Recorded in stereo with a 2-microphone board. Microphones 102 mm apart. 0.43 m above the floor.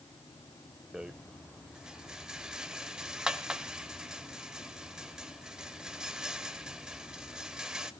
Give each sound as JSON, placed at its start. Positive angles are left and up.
{"t": 0.9, "sound": "a rattle", "side_deg": -5, "distance_m": 0.9}